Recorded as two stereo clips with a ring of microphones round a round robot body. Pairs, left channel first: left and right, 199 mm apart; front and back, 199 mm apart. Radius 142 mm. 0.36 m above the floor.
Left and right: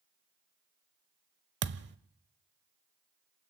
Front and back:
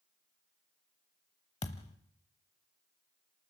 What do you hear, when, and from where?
1.6 s a thud: 65° right, 0.8 m